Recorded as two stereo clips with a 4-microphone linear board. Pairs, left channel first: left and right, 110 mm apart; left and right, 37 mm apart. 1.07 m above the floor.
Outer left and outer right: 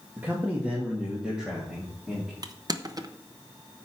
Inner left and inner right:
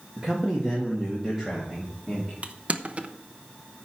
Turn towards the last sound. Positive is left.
turn(degrees=-35)  # may be behind; listen again after turning